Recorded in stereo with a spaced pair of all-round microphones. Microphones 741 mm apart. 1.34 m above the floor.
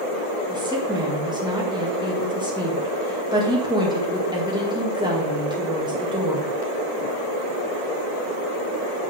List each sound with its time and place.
0.5 s a woman speaking: 5° right (ahead or behind), 2 m